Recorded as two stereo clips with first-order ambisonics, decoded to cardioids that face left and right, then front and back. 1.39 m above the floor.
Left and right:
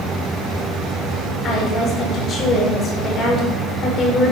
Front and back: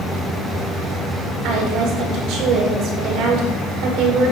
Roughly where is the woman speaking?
Behind left.